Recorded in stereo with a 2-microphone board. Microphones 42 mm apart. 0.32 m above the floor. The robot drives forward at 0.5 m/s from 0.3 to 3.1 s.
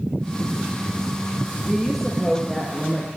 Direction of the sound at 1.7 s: 5° right (ahead or behind).